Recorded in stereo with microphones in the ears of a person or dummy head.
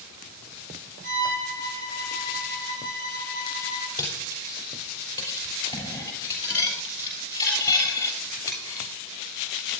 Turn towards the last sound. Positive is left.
turn(degrees=15)  # may be behind; listen again after turning